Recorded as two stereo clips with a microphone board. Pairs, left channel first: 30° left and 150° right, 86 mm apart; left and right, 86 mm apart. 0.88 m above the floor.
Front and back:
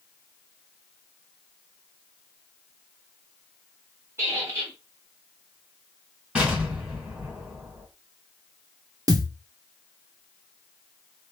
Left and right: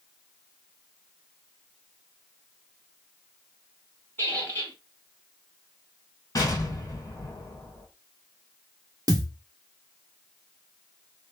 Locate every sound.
4.2 s a squeak: 155° left, 1.6 m
6.3 s an explosion: 135° left, 2 m
9.1 s a thud: 120° right, 0.7 m